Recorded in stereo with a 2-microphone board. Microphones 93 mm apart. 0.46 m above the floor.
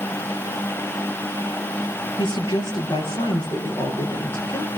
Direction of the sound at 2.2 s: 65° left (ahead or behind).